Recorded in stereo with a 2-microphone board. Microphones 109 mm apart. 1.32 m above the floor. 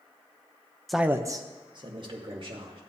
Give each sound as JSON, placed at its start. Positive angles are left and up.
{"t": 0.9, "sound": "a man speaking", "side_deg": 0, "distance_m": 0.5}